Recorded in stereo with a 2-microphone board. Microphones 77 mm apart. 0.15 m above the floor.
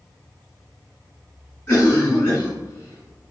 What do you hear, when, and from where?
1.7 s a cough: 20° left (ahead or behind), 1.9 m